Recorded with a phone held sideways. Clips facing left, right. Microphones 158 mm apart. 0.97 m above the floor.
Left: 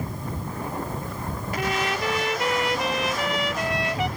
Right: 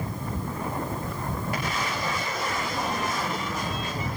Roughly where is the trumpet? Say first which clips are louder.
Left 4 dB; left.